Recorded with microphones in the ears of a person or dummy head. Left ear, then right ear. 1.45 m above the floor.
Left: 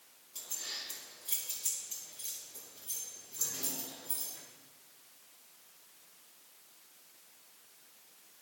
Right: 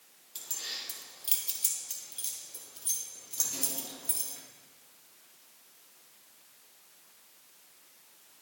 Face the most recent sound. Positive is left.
turn(degrees=-80)